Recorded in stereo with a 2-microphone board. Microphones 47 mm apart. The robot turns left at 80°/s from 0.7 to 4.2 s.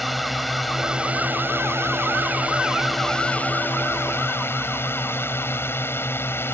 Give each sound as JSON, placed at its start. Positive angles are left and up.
{"t": 0.0, "sound": "a drone", "azimuth_deg": 0}